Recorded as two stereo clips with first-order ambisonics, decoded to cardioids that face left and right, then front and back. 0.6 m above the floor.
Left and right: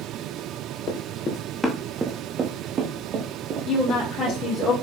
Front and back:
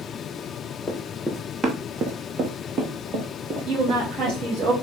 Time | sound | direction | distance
0.9 | running footsteps | 80° left | 0.7 m
3.7 | a woman speaking | 140° left | 1.6 m